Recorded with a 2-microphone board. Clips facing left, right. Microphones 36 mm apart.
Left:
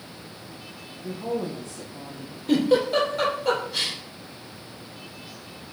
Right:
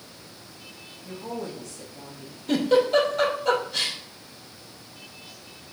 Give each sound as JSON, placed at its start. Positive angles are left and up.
{"t": 1.0, "sound": "a woman speaking", "side_deg": 45, "distance_m": 4.0}
{"t": 2.5, "sound": "a giggle", "side_deg": 5, "distance_m": 3.0}